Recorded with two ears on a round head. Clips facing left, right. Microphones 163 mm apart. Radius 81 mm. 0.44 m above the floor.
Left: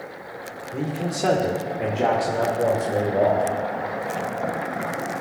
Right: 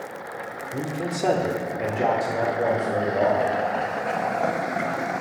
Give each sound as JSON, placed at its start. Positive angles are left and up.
{"t": 0.7, "sound": "a man speaking", "side_deg": -10, "distance_m": 1.0}